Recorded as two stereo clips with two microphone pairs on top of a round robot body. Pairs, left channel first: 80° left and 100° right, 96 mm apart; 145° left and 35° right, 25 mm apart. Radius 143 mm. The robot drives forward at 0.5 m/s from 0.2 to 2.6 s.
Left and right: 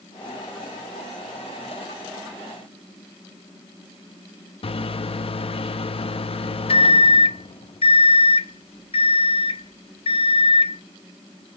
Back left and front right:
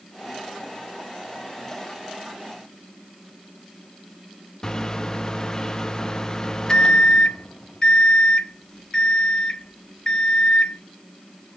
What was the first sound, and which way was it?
A microwave, 85° left.